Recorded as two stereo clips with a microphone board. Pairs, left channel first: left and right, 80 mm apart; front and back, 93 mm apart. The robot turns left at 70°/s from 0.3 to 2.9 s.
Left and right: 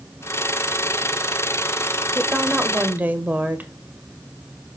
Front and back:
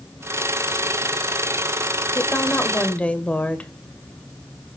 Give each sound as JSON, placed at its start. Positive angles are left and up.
{"t": 2.1, "sound": "a woman speaking", "azimuth_deg": -5, "distance_m": 0.9}